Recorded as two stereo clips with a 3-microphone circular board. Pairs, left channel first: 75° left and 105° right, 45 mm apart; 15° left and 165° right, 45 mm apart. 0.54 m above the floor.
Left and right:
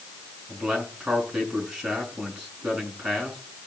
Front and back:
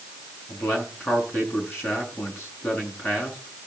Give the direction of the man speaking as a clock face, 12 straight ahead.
1 o'clock.